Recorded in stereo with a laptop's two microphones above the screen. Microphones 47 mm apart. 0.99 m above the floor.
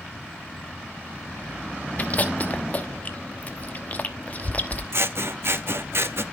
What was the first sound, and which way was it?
Chewing, 40° left (ahead or behind).